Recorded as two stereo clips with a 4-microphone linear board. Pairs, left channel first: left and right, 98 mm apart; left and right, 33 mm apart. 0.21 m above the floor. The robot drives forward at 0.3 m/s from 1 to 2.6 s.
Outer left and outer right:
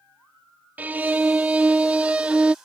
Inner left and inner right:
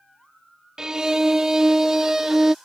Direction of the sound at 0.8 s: 15° right (ahead or behind).